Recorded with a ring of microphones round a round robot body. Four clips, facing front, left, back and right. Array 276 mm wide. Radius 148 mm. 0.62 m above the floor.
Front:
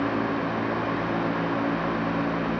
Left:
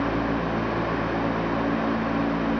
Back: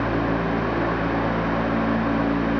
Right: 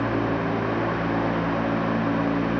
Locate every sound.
Only background noise.